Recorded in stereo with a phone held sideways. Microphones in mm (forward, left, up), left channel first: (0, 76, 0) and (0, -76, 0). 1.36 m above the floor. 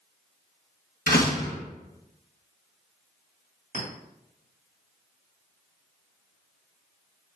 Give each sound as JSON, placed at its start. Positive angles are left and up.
{"t": 1.1, "sound": "a door slam", "side_deg": 80, "distance_m": 1.1}
{"t": 3.7, "sound": "a clink", "side_deg": -65, "distance_m": 2.0}